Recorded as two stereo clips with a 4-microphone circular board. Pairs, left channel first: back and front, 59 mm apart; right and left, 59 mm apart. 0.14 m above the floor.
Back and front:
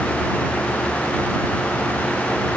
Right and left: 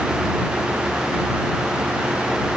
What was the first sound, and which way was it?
Only background noise.